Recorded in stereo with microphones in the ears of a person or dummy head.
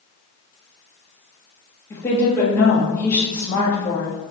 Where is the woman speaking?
15° left (ahead or behind), 1.3 m.